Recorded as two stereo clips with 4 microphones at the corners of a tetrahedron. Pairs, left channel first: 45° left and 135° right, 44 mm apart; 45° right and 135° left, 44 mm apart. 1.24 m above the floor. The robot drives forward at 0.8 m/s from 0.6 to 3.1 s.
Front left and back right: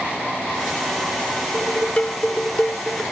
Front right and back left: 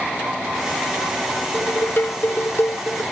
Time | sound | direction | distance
1.5 | dishes clattering | 10° right | ?